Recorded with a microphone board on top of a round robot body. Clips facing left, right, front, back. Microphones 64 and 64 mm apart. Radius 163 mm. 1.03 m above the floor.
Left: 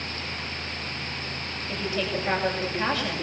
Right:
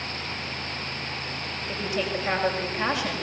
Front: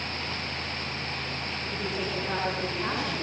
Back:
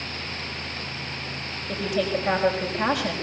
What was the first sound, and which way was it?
A woman speaking, 165° right.